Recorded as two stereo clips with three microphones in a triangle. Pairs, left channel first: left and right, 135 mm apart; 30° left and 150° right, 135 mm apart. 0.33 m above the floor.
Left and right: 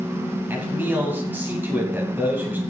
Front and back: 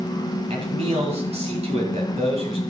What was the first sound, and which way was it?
A man speaking, 160° right.